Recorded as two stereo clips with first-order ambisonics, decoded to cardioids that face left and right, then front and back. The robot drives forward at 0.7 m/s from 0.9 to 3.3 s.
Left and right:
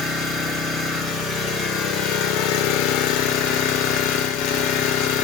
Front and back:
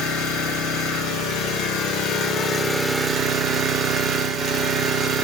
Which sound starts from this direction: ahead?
An engine running, at 0.0 s.